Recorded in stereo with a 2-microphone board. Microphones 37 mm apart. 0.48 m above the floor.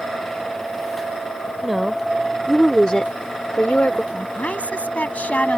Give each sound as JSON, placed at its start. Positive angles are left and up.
{"t": 1.6, "sound": "a woman speaking", "side_deg": -10}
{"t": 4.1, "sound": "a woman speaking", "side_deg": 40}